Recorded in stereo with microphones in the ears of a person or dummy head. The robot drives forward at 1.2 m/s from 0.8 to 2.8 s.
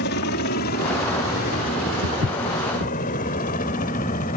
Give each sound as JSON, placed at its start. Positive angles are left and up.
{"t": 0.0, "sound": "a helicopter", "side_deg": 50}
{"t": 2.0, "sound": "footsteps", "side_deg": -60}